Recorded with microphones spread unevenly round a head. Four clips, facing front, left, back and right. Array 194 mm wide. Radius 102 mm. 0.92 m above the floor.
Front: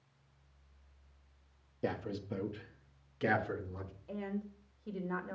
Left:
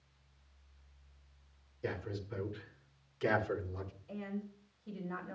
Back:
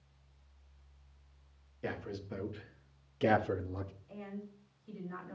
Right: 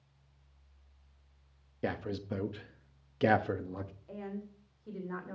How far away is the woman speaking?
About 3 m.